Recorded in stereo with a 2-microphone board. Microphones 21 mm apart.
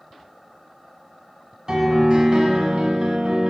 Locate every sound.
1.7 s a piano: 35° right (ahead or behind), 1.1 m